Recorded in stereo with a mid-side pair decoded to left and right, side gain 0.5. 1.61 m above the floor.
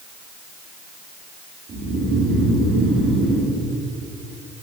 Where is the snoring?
55° right, 5 m.